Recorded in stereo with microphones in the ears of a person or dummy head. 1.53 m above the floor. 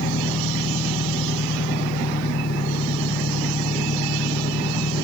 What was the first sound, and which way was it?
An engine running, 55° left (ahead or behind).